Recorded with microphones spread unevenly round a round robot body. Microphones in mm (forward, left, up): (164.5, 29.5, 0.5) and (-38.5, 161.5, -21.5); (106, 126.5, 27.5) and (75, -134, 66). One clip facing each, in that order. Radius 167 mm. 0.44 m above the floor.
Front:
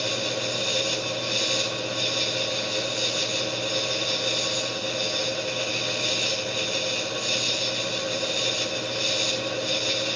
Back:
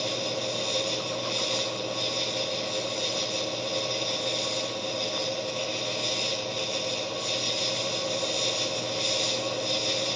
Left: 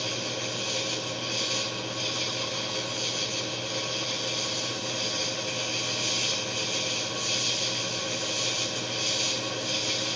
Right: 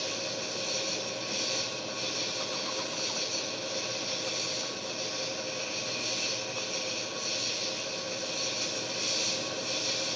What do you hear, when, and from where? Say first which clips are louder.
0.0 s an insect: front 2 dB, left 3 dB; 45° left, 9.5 m